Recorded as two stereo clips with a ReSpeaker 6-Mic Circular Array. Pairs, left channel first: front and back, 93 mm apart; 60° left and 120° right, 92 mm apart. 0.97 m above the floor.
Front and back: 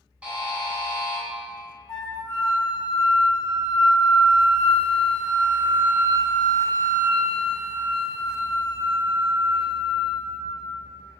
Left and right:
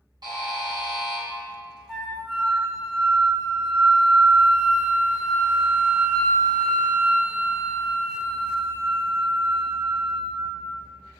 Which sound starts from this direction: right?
A buzzer, at 0.2 s.